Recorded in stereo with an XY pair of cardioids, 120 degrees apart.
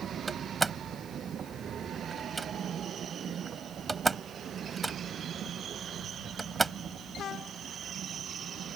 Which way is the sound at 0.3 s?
20° right.